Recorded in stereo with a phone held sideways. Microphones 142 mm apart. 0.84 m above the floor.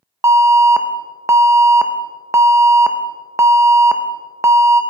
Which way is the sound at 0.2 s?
20° right (ahead or behind).